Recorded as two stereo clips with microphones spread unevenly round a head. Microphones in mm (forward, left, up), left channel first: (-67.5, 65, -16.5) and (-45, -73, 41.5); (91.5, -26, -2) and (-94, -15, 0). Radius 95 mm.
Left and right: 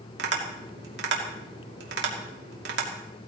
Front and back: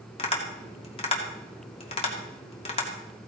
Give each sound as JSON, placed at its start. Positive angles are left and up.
{"t": 0.2, "sound": "tapping", "azimuth_deg": -60, "distance_m": 2.5}